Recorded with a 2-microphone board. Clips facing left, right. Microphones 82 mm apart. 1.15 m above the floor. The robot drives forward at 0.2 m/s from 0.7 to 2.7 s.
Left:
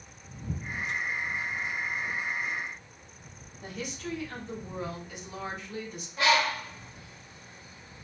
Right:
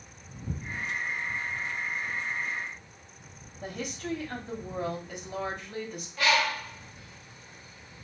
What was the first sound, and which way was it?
A woman speaking, 45° right (ahead or behind).